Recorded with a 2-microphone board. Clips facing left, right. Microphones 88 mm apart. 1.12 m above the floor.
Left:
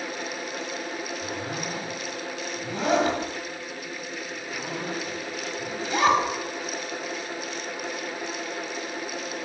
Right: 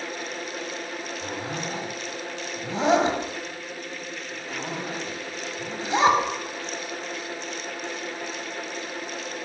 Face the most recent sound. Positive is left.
turn(degrees=-25)  # may be behind; listen again after turning